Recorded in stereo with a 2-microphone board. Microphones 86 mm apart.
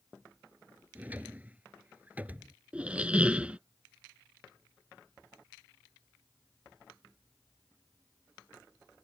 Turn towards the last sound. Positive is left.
turn(degrees=-15)  # may be behind; listen again after turning